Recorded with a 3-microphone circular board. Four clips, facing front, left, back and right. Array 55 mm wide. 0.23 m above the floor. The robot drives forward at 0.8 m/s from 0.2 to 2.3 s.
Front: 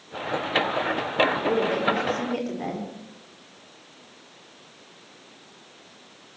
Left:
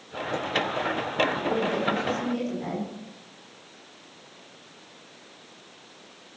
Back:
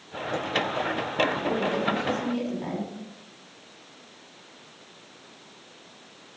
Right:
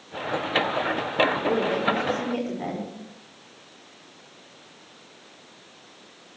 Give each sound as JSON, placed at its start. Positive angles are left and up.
{"t": 1.4, "sound": "a woman speaking", "azimuth_deg": -35, "distance_m": 6.5}